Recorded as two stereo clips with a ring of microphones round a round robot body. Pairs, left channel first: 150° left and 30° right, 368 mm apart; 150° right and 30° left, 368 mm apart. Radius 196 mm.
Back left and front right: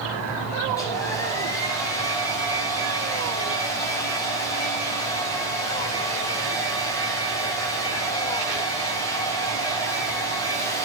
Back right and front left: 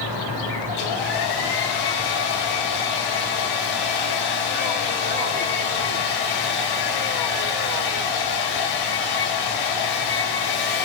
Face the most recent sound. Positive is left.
turn(degrees=-130)